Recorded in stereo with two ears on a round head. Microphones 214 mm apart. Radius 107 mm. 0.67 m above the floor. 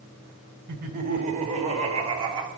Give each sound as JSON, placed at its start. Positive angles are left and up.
{"t": 0.7, "sound": "laughter", "side_deg": -40, "distance_m": 3.0}